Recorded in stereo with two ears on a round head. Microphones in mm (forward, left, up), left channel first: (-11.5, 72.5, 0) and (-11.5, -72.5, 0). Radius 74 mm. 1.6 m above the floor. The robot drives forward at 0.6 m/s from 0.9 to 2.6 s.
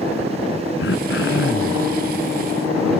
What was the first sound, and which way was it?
Throat clearing, 75° left (ahead or behind).